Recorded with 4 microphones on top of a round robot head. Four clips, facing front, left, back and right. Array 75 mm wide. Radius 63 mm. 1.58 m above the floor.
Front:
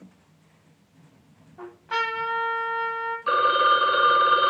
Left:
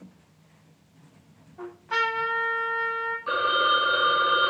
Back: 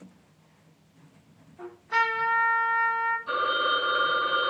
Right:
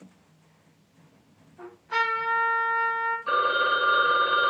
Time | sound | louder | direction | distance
1.6 | a trumpet | even, back 2 dB | 30° left | 9 m
3.3 | a phone ringing | left 1 dB, front 11 dB | straight ahead | 5.5 m